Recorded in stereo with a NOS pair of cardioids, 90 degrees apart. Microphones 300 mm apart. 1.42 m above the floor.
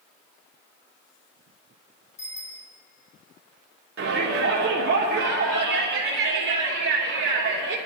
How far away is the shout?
About 3.5 m.